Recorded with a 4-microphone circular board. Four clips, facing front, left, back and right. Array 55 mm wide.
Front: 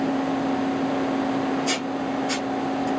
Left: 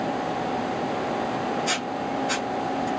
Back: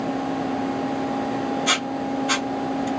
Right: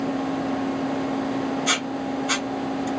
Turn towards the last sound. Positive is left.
turn(degrees=-155)